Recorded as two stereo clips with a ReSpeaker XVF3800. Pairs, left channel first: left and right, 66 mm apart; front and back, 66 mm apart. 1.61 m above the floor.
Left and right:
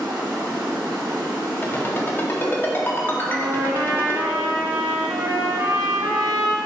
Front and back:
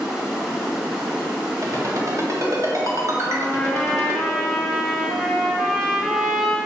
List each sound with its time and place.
0.0 s running water: 100° right, 2.5 m
1.6 s a ringtone: 150° left, 1.9 m
3.2 s a trumpet: 85° right, 1.3 m